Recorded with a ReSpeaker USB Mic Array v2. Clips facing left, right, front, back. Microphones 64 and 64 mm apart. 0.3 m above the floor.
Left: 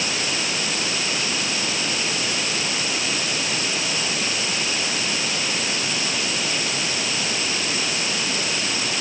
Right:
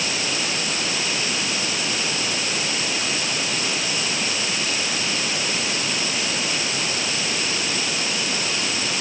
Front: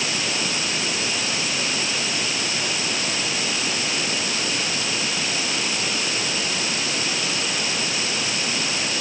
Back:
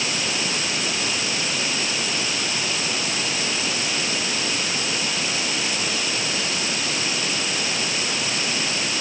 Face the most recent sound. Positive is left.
No sound to turn to.